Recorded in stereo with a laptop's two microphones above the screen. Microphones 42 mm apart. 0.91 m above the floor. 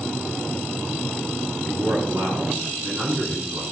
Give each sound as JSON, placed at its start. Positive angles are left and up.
{"t": 1.7, "sound": "a man speaking", "side_deg": -75, "distance_m": 9.5}